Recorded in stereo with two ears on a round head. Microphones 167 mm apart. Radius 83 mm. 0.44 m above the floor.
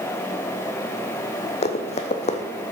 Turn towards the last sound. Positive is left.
turn(degrees=35)  # may be behind; listen again after turning